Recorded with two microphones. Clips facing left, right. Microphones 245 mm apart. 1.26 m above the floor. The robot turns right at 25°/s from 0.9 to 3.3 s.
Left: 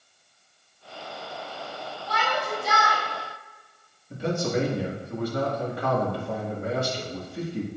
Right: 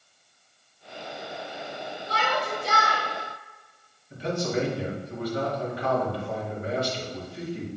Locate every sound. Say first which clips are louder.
2.1 s a shout: even; 45° right (ahead or behind), 2.5 m; by 3.0 s 25° right (ahead or behind), 2.5 m
4.1 s a man speaking: left 1 dB; 50° left (ahead or behind), 1.7 m